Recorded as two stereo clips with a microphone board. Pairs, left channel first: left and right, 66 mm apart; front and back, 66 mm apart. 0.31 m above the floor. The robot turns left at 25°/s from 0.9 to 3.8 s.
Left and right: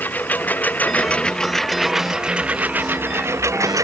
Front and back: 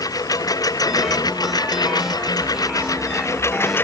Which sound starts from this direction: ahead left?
A lawn mower, at 0.0 s.